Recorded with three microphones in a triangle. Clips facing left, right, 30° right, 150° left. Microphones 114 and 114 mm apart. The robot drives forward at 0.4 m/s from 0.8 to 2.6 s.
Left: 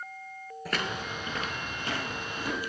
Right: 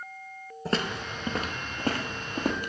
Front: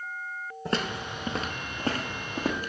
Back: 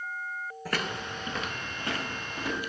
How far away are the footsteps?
About 0.8 m.